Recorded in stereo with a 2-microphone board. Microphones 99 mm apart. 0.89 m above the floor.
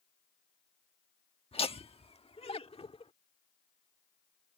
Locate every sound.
1.5 s laughter: 70° left (ahead or behind); by 3.1 s 80° left